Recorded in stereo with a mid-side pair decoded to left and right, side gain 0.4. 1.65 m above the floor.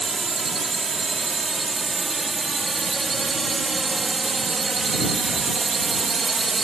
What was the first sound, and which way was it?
A drone, 25° right.